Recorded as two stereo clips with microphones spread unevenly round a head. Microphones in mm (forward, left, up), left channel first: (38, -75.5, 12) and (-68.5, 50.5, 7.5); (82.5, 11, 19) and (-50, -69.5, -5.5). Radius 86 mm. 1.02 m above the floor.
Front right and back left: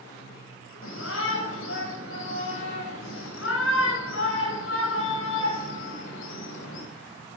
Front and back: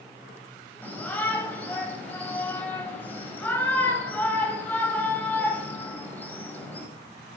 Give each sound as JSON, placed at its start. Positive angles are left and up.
{"t": 0.8, "sound": "a shout", "azimuth_deg": -50, "distance_m": 5.0}